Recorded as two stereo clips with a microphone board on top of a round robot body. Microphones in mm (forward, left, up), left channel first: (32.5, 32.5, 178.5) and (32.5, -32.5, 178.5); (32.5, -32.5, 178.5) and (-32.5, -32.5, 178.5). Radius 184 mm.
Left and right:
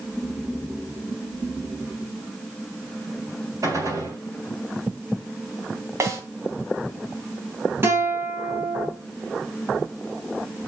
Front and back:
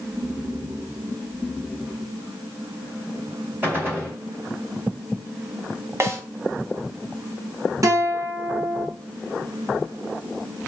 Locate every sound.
3.6 s a gunshot: 125° right, 4.5 m
6.0 s a snare drum: 135° right, 3 m
7.8 s a guitar: 145° right, 3.5 m